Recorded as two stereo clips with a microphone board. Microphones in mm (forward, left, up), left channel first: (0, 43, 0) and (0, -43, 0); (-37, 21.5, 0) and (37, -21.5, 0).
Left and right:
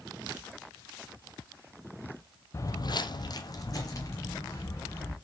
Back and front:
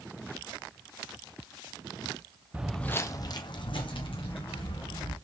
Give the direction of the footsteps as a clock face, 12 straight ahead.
11 o'clock.